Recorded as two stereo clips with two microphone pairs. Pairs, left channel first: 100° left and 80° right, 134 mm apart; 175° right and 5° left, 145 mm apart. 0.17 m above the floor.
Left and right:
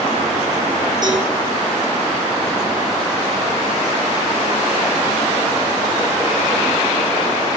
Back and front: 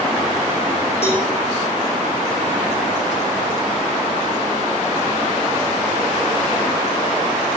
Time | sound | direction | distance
1.0 | a cowbell | 135° right | 10 m